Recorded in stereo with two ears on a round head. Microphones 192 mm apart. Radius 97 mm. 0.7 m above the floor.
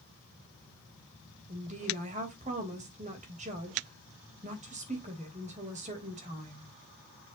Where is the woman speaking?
35° right (ahead or behind), 3.5 m.